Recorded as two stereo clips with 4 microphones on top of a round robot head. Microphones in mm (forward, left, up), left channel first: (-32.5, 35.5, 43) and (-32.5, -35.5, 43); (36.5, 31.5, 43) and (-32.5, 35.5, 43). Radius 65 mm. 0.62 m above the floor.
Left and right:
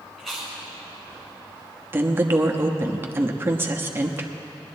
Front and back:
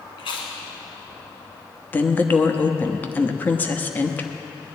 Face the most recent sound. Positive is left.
turn(degrees=-55)